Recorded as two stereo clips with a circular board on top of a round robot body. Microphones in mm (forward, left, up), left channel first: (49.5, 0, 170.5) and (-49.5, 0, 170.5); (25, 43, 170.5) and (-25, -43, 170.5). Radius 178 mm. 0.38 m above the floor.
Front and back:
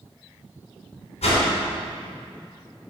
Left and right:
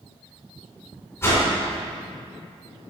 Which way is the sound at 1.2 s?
5° right.